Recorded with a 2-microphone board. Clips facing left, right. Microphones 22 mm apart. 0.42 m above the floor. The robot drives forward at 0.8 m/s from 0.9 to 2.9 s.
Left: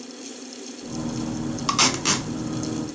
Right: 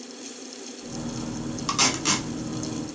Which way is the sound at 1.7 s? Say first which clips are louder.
Left 2 dB; 20° left (ahead or behind).